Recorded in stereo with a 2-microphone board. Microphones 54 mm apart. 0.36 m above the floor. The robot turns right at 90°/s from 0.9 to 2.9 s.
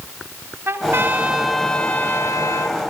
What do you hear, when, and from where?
0.7 s a trumpet: 55° right, 1.9 m; by 2.8 s 110° left, 1.9 m